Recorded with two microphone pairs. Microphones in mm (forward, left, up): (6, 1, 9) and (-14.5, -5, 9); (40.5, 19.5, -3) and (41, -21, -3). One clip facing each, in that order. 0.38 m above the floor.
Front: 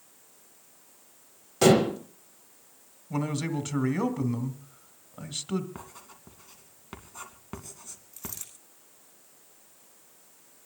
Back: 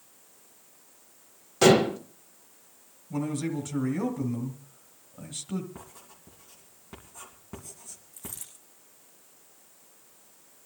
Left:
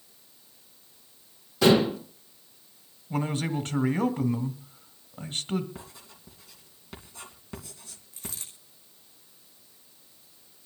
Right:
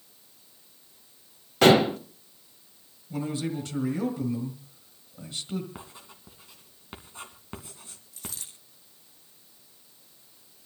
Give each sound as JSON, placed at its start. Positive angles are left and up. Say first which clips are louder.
{"t": 1.6, "sound": "dishes clattering", "louder": "back 1 dB, right 2 dB", "azimuth_deg": -85, "distance_m": 1.3}
{"t": 3.1, "sound": "a man speaking", "louder": "even, left 2 dB", "azimuth_deg": 55, "distance_m": 1.9}
{"t": 5.8, "sound": "writing", "louder": "front 3 dB, right 1 dB", "azimuth_deg": -30, "distance_m": 2.5}
{"t": 8.1, "sound": "a dropped coin", "louder": "front 2 dB, even", "azimuth_deg": 25, "distance_m": 5.5}